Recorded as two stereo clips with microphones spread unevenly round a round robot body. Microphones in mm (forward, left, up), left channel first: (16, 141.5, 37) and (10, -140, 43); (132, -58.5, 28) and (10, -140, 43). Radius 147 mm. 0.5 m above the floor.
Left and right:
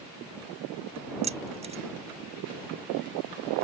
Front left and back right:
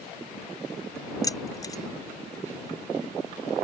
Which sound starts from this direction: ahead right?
Keys jangling, at 1.2 s.